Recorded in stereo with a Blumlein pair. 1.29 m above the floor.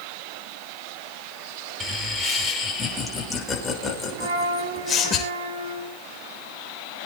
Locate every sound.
1.8 s laughter: 5° right, 6 m; by 5.2 s 20° left, 7 m
4.2 s a flute: 60° right, 4.5 m